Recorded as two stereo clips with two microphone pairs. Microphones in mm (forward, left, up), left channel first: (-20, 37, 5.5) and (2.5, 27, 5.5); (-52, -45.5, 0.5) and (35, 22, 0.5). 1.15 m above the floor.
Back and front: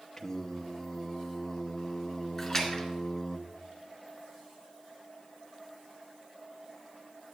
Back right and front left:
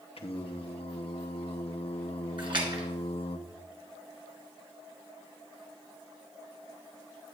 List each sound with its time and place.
0.2 s singing: 125° right, 0.7 m
2.4 s a splash: 80° left, 2.5 m